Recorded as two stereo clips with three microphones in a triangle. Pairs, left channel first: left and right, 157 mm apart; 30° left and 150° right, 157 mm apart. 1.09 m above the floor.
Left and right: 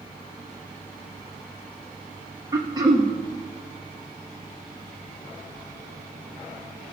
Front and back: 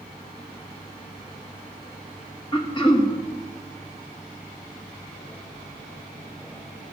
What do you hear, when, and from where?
2.5 s throat clearing: 25° right, 1.5 m